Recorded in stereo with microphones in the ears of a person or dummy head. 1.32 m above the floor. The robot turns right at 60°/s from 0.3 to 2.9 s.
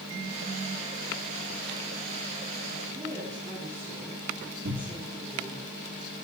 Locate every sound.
2.9 s a woman speaking: 40° right (ahead or behind), 9 m
4.7 s a cupboard door: 65° right (ahead or behind), 2.5 m